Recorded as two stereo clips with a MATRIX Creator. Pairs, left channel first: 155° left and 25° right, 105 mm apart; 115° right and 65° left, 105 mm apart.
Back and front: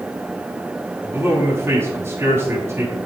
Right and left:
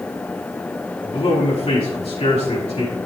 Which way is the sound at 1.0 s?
90° right.